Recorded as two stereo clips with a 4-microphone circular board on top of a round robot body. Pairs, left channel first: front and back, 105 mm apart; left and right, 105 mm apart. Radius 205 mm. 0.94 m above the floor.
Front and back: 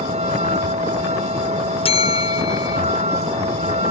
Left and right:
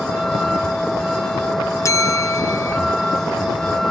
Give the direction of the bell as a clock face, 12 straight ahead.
11 o'clock.